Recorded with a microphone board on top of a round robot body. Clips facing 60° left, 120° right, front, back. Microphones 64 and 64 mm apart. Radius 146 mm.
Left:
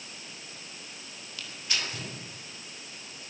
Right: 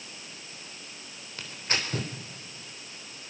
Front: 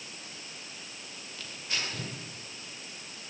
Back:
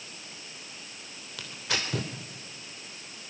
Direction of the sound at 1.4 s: 170° right.